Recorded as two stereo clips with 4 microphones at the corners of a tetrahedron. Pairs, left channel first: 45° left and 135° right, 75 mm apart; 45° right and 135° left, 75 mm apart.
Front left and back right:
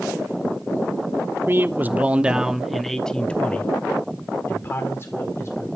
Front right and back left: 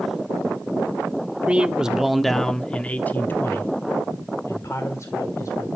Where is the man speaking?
165° right, 1.0 m; by 5.7 s 5° right, 1.9 m.